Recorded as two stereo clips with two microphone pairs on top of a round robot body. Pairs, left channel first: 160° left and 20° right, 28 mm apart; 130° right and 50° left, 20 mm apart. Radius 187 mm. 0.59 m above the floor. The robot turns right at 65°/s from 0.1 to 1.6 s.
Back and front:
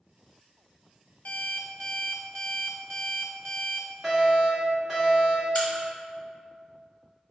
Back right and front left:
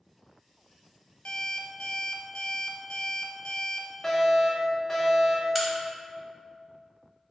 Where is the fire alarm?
90° right, 1.6 m.